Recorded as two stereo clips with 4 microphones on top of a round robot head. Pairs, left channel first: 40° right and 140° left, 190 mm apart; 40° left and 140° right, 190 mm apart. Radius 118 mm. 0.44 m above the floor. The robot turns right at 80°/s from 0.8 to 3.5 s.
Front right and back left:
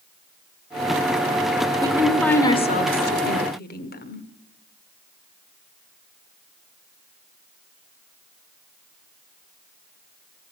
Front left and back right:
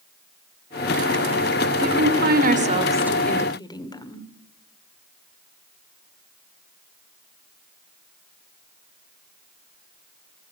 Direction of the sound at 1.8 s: 160° right.